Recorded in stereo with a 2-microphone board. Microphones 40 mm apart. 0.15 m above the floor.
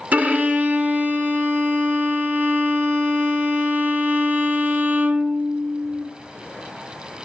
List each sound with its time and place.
0.1 s a violin: 40° right (ahead or behind), 1.1 m